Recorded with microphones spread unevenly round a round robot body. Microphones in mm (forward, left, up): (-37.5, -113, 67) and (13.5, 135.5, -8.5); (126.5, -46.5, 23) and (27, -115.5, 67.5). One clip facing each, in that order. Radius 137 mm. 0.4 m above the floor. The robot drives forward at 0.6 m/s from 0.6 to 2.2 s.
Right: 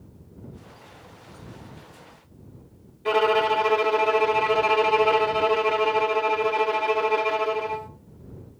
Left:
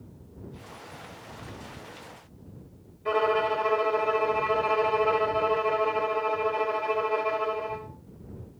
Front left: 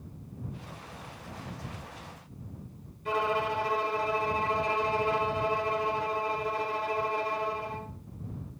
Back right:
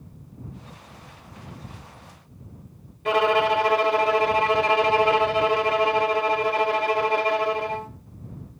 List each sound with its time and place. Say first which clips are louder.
3.0 s a violin: right 4 dB, back right 9 dB; 140° right, 1.2 m